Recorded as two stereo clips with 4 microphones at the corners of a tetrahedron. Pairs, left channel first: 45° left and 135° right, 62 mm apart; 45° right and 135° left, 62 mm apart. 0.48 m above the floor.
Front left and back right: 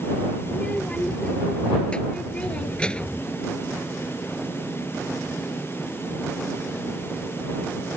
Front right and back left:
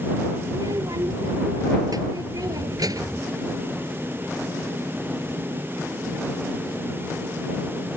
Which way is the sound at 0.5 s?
120° left.